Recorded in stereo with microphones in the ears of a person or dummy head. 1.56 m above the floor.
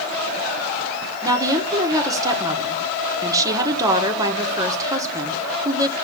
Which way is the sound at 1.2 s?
25° right (ahead or behind).